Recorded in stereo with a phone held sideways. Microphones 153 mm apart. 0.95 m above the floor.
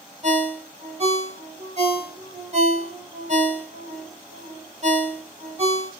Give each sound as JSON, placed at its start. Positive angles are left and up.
{"t": 0.2, "sound": "a ringtone", "side_deg": -45, "distance_m": 1.1}